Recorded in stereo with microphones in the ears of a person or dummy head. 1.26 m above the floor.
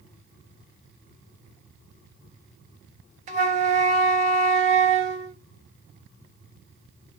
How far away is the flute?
About 0.5 m.